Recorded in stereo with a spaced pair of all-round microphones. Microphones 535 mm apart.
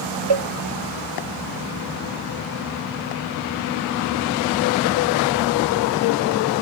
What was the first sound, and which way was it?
A cowbell, 55° right (ahead or behind).